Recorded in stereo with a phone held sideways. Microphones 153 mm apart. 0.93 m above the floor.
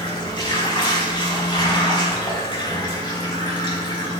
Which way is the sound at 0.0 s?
30° left (ahead or behind).